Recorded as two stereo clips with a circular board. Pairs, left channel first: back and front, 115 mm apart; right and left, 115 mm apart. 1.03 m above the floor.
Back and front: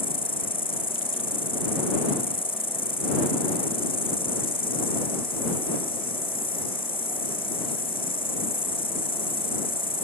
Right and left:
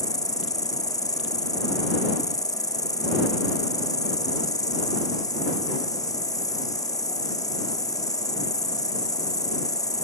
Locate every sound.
0.0 s an insect: 145° right